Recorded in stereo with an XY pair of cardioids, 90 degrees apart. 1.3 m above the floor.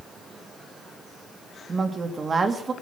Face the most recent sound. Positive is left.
turn(degrees=-40)